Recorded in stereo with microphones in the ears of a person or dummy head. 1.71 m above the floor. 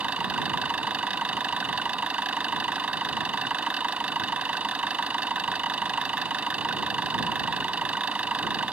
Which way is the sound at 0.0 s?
10° right (ahead or behind).